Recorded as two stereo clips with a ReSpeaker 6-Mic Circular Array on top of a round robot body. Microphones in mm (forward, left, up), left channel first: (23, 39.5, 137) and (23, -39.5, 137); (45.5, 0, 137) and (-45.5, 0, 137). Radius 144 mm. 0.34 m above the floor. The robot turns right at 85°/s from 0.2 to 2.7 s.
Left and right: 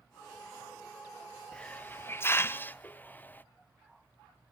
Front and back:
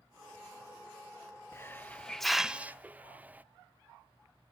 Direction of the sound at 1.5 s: 25° left.